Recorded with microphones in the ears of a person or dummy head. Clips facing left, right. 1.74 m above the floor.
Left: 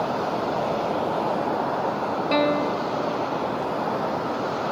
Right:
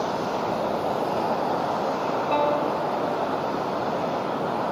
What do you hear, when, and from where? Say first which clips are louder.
2.3 s a guitar: left 3 dB; 25° left (ahead or behind), 1.5 m